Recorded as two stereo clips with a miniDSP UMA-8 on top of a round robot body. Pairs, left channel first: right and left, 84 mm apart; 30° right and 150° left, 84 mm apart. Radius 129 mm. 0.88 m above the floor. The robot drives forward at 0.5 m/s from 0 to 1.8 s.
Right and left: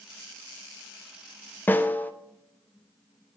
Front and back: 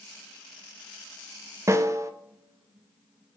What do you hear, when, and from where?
1.7 s a snare drum: 155° right, 0.8 m; by 2.1 s 160° right, 0.9 m